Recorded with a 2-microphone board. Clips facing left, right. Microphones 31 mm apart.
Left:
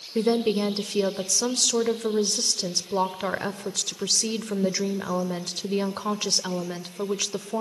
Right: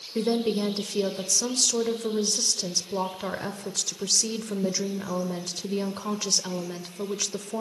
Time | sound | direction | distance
0.1 | a woman speaking | 25° left (ahead or behind) | 1.0 m